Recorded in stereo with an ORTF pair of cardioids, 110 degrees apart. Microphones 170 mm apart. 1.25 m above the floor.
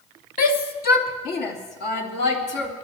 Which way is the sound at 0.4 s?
55° left.